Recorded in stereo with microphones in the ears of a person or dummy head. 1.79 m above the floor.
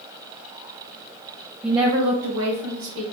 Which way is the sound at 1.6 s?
Centre (ahead or behind).